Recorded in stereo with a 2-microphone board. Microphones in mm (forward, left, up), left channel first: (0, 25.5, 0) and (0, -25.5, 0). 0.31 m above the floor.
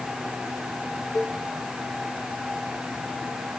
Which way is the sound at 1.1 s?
20° left (ahead or behind).